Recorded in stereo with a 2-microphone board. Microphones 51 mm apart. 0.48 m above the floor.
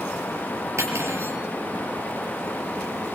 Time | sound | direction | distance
0.8 | cutlery clinking | 60° right (ahead or behind) | 5.5 m